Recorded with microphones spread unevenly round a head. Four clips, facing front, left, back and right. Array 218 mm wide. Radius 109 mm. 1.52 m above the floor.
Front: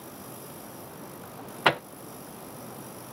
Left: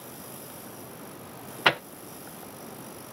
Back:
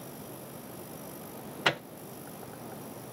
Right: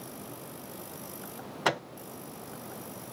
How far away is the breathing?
I don't hear breathing.